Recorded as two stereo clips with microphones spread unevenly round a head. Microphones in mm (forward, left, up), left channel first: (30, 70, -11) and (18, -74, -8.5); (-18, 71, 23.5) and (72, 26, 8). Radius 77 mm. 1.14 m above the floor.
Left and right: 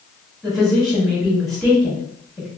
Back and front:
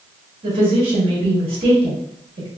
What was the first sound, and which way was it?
A woman speaking, straight ahead.